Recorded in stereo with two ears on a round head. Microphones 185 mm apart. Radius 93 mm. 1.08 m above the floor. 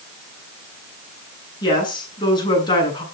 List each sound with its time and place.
1.6 s a woman speaking: 25° left (ahead or behind), 9.5 m